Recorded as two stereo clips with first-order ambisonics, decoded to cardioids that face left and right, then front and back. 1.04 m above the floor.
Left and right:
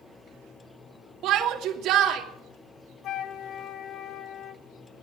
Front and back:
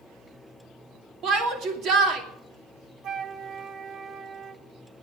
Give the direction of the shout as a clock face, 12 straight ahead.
4 o'clock.